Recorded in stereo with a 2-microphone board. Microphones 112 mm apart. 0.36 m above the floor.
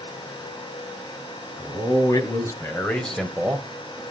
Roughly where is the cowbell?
No cowbell in this recording.